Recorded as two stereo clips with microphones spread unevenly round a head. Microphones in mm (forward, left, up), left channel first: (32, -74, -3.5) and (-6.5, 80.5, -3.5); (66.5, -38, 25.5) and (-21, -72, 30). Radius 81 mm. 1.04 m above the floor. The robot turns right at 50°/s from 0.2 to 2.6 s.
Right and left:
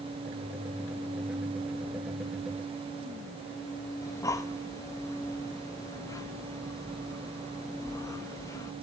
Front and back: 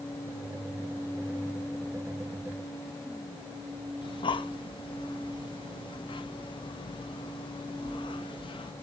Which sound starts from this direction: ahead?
Breathing, at 4.0 s.